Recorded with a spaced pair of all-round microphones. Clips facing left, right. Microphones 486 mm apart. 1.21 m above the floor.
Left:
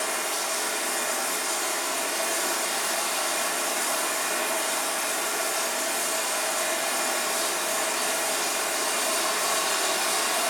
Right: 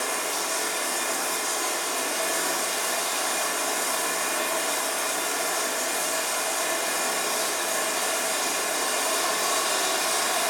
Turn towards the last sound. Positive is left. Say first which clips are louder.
# right 1 dB
turn(degrees=-65)  # may be behind; listen again after turning